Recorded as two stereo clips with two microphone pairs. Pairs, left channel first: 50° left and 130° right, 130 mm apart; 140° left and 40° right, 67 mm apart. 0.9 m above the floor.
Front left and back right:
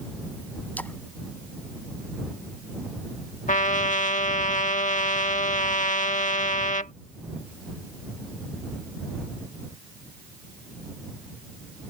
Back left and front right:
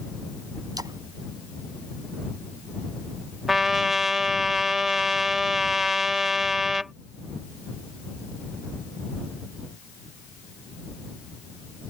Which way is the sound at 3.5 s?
45° left.